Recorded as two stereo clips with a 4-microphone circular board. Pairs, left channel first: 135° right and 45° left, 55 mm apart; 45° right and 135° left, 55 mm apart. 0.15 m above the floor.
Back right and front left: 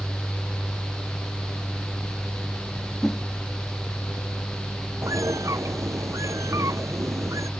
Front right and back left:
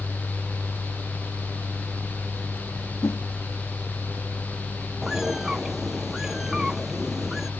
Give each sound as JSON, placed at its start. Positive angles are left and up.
{"t": 3.0, "sound": "a whoosh", "azimuth_deg": -50}
{"t": 5.0, "sound": "a bird", "azimuth_deg": 55}